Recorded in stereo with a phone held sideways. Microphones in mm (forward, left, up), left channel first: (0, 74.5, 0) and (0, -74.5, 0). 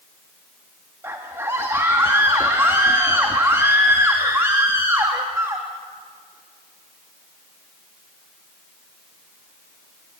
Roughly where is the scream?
Centre.